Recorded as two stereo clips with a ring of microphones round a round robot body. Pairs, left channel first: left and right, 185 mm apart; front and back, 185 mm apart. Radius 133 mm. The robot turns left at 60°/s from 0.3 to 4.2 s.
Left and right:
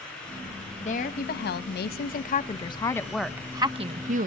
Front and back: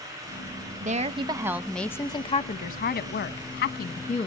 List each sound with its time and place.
0.8 s a woman speaking: 145° left, 0.9 m; by 4.3 s 60° right, 0.9 m